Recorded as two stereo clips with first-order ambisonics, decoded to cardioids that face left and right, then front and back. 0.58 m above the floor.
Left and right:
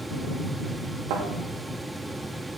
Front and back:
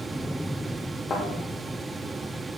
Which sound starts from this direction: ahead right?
A thud, at 1.1 s.